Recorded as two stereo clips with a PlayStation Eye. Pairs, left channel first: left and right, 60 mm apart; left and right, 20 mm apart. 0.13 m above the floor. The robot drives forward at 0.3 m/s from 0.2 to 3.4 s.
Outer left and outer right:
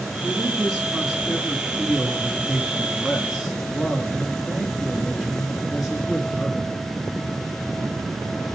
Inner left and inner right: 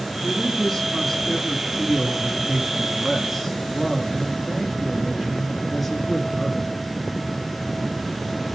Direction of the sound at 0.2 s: 10° right (ahead or behind).